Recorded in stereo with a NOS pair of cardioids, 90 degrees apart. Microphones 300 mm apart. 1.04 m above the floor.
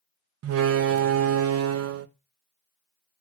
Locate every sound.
0.4 s a door slam: 55° right, 0.8 m